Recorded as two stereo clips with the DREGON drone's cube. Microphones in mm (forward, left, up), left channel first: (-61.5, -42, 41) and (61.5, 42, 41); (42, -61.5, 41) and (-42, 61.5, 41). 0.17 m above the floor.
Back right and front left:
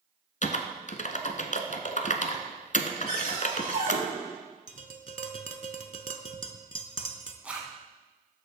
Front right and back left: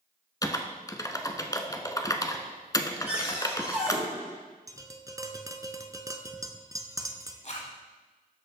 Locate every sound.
0.4 s typing on a keyboard: 120° right, 0.8 m
3.1 s a cupboard door: 50° left, 3.5 m
4.7 s tapping: 60° left, 0.8 m
7.4 s a zipper: 45° right, 1.5 m